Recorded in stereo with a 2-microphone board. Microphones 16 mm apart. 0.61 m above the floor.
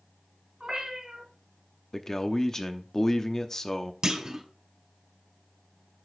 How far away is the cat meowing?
About 2.5 m.